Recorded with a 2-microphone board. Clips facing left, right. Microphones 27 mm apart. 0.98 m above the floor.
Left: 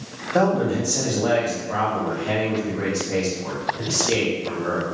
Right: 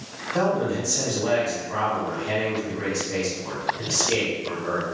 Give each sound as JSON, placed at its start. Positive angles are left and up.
{"t": 0.3, "sound": "a man speaking", "side_deg": 60, "distance_m": 0.9}